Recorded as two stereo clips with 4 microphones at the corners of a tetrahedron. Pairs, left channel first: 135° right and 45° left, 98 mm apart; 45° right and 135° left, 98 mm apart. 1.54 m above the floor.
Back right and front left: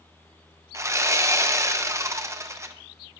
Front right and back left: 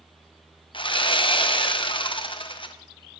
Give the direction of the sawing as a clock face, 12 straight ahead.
12 o'clock.